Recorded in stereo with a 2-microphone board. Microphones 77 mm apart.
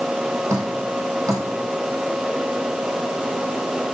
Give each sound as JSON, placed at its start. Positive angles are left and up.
{"t": 0.5, "sound": "dripping", "side_deg": -45, "distance_m": 6.0}